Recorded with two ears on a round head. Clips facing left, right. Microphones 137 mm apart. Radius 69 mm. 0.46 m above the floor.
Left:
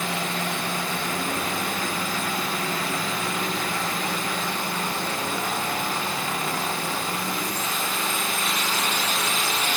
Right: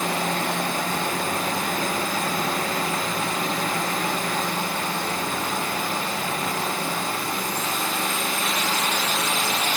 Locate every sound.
Only background noise.